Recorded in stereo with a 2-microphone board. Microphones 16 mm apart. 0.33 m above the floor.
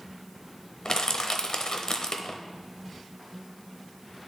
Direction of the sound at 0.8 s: 50° left (ahead or behind).